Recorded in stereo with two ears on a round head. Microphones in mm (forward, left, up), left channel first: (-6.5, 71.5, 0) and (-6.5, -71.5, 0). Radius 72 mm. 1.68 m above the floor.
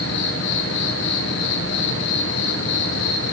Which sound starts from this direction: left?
An insect, at 0.0 s.